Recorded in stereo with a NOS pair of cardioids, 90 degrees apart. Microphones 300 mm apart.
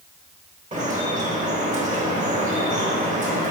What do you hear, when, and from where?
0.7 s dripping: 25° right, 1.0 m